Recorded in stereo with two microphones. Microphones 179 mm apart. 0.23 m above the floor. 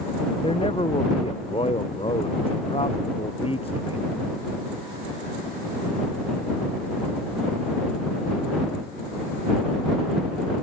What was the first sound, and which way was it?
A man speaking, 30° left (ahead or behind).